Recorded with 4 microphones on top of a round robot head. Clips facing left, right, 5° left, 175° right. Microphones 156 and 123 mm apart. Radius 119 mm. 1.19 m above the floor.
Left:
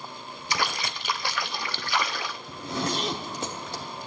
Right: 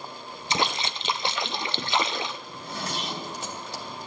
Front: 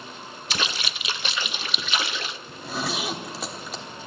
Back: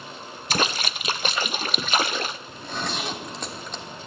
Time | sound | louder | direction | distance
0.5 | a splash | right 2 dB, back 5 dB | 150° right | 0.6 m
2.5 | a zipper | left 5 dB, front 1 dB | 90° left | 1.2 m